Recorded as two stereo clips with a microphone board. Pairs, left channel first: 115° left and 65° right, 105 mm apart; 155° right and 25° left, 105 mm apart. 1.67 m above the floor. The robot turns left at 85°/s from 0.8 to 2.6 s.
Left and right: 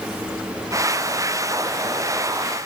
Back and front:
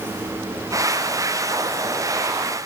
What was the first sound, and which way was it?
Only background noise.